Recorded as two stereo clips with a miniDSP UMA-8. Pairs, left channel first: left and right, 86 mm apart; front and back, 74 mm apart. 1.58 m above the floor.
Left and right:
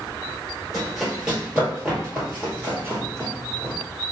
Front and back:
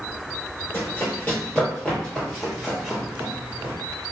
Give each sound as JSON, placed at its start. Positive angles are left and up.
{"t": 0.7, "sound": "running footsteps", "azimuth_deg": 0, "distance_m": 1.7}